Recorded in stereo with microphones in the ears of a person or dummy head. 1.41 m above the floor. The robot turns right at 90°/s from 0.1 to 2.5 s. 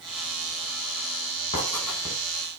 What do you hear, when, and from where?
1.5 s writing: 40° left (ahead or behind), 5 m; by 2.1 s 15° right (ahead or behind), 5 m